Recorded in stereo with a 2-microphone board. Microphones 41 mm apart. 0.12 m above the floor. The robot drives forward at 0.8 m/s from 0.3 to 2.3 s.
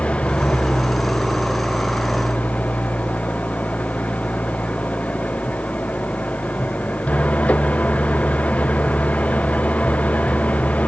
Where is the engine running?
30° left (ahead or behind); by 10.9 s 35° left (ahead or behind).